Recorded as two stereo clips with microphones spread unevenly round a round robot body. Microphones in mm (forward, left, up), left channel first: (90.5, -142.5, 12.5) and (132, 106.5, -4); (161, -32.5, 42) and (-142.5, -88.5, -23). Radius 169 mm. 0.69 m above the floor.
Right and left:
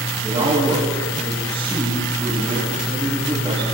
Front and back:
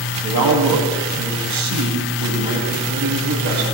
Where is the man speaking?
155° left, 5 m.